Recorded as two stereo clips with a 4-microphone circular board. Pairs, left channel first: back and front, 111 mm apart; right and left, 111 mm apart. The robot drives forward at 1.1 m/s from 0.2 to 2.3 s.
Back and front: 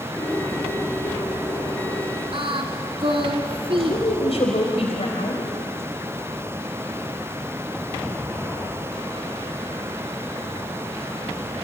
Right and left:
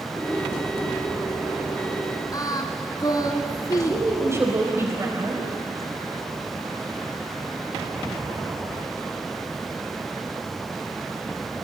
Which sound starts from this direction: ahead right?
Singing, at 2.3 s.